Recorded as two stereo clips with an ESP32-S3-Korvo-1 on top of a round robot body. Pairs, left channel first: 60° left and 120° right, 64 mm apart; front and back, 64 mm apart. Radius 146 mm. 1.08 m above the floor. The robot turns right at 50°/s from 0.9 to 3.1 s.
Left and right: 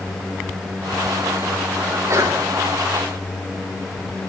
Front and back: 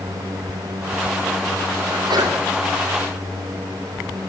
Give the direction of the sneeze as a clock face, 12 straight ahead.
6 o'clock.